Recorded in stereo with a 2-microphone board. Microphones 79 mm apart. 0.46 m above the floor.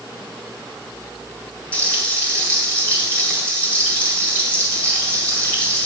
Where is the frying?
20° left (ahead or behind), 2 m.